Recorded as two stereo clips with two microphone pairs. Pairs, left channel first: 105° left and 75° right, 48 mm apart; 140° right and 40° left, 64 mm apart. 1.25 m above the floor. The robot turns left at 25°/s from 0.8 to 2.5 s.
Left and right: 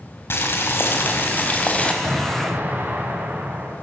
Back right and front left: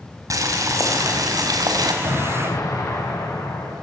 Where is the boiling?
70° left, 4 m; by 1.9 s 40° left, 4 m.